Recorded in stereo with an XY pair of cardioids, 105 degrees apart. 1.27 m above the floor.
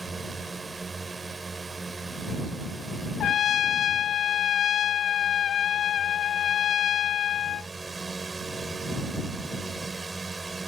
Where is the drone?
25° right.